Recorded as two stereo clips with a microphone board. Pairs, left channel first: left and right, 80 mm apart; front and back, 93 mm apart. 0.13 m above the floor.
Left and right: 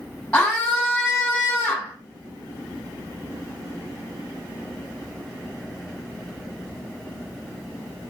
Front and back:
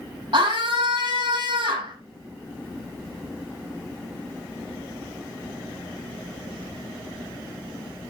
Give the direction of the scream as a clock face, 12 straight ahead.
6 o'clock.